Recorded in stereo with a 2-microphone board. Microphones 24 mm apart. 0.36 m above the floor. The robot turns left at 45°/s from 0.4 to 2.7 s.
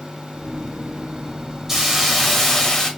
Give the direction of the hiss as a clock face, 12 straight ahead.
5 o'clock.